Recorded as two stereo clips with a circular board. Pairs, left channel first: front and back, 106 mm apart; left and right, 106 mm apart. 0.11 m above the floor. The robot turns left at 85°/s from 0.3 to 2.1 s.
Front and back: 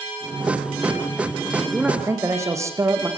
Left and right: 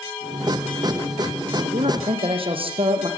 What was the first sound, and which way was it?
A man speaking, 80° right.